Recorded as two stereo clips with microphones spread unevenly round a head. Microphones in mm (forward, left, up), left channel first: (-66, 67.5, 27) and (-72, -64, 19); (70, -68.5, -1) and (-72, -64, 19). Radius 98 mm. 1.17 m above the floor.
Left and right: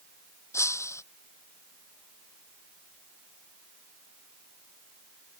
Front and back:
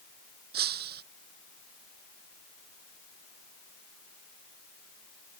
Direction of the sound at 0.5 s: 155° left.